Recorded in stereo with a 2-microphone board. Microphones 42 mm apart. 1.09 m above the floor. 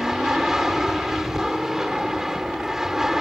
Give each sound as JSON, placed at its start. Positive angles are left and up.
{"t": 0.0, "sound": "an aircraft", "side_deg": -10}